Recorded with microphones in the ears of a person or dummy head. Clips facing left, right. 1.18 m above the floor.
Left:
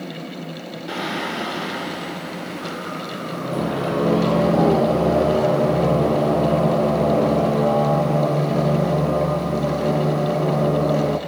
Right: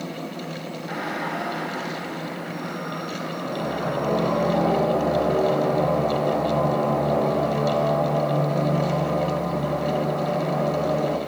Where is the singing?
40° left (ahead or behind), 0.8 m.